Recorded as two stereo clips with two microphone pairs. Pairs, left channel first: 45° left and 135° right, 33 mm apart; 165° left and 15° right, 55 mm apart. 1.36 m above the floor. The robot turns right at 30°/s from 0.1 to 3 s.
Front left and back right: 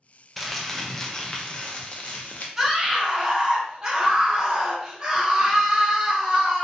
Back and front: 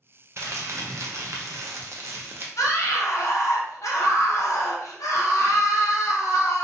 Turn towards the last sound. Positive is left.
turn(degrees=160)